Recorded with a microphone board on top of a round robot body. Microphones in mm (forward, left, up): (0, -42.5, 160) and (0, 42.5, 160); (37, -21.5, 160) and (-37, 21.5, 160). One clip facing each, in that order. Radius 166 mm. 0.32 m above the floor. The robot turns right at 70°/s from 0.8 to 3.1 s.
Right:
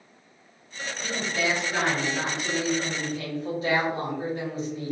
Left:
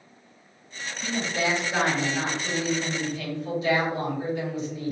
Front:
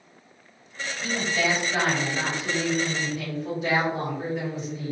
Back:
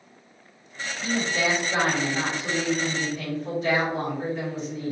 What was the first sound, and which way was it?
A woman speaking, 100° left.